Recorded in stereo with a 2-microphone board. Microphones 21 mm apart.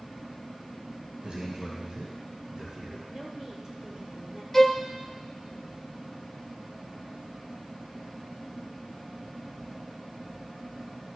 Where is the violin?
10° left (ahead or behind), 0.8 m.